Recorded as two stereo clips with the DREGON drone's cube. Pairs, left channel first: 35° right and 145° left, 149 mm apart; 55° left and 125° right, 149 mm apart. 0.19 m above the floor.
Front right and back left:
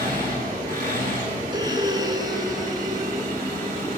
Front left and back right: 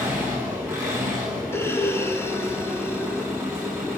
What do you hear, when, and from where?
0.0 s an engine running: 160° left, 7 m
1.5 s breathing: 115° left, 1.3 m